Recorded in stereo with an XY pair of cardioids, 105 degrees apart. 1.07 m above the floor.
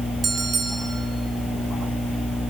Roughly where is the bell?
Ahead right.